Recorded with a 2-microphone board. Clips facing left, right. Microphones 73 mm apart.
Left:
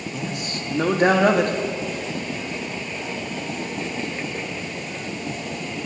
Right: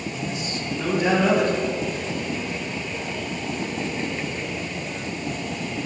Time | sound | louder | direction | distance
0.1 | a man speaking | even | 50° left (ahead or behind) | 1.3 m